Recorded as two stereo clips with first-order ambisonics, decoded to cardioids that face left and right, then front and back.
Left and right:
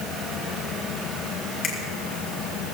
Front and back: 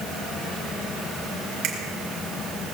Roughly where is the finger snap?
Behind left.